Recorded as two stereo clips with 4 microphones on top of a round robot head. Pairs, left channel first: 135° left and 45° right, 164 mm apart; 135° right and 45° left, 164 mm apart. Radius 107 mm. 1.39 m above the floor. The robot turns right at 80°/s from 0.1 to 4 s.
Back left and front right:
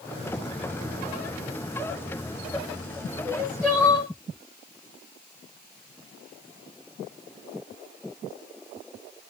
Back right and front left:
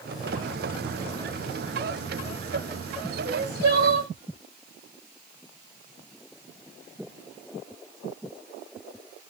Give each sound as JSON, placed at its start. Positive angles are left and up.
{"t": 3.2, "sound": "crying", "azimuth_deg": 20, "distance_m": 1.6}